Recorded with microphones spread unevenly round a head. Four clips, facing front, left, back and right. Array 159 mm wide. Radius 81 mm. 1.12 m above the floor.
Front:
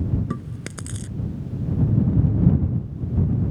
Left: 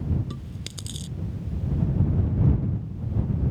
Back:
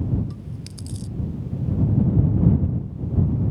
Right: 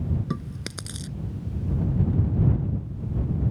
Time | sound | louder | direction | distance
0.3 | chewing | right 6 dB, front 6 dB | 30° right | ?